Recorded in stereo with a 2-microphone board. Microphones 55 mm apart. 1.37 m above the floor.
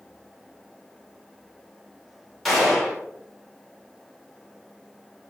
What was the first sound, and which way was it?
A gunshot, centre (ahead or behind).